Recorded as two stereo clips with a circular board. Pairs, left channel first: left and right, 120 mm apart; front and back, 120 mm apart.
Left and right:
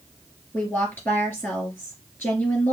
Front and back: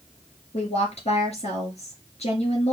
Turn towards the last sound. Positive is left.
turn(degrees=20)